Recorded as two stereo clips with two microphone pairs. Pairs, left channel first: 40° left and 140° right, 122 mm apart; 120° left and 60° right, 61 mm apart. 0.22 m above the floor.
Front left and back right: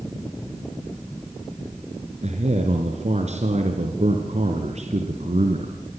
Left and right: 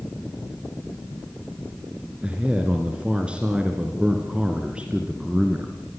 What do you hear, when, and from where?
2.2 s a man speaking: 135° right, 2.5 m